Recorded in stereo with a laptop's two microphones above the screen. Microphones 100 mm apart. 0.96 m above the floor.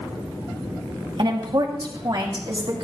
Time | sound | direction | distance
1.2 | a woman speaking | 50° right (ahead or behind) | 2 m